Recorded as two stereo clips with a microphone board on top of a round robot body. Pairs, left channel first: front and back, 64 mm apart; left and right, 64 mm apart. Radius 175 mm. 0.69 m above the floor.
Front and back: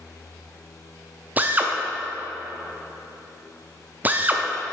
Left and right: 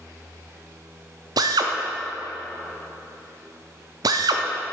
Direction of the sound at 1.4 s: 115° right.